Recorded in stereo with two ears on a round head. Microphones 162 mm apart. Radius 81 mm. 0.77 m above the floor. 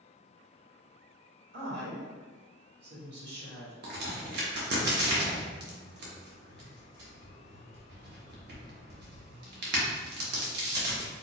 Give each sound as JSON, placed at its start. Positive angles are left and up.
{"t": 1.5, "sound": "a woman speaking", "side_deg": -65, "distance_m": 1.8}
{"t": 3.8, "sound": "a crack", "side_deg": -60, "distance_m": 1.0}